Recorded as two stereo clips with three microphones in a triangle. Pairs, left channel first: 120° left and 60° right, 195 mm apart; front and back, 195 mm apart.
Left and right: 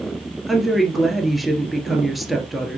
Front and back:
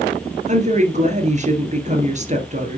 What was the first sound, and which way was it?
A woman speaking, 150° right.